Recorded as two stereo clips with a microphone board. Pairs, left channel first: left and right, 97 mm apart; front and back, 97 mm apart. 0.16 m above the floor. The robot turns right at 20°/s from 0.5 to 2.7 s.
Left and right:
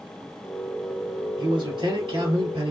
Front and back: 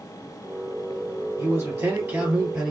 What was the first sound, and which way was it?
A man speaking, 120° right.